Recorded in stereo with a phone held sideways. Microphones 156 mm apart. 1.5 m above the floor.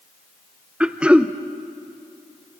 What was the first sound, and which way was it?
Throat clearing, 5° right (ahead or behind).